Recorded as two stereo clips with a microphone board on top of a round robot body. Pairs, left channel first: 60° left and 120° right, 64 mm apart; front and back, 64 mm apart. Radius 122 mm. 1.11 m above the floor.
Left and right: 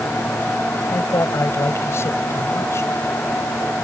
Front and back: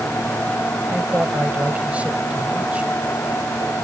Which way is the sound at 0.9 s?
110° left.